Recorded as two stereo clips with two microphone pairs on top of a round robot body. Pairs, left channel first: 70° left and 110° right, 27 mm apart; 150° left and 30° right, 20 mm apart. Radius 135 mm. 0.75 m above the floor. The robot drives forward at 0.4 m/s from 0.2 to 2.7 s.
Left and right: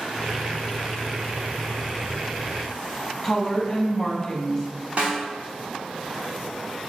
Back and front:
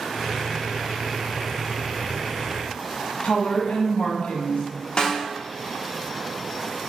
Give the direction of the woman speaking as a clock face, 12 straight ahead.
7 o'clock.